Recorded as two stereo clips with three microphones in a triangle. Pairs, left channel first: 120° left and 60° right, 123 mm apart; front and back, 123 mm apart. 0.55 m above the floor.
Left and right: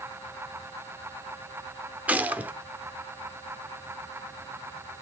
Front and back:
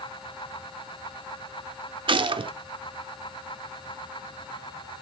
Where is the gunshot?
135° right, 0.6 m.